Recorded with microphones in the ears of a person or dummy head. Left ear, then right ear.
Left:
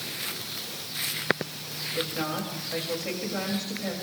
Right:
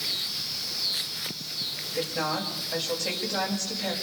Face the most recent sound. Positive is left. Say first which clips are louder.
# right 2 dB
turn(degrees=-25)  # may be behind; listen again after turning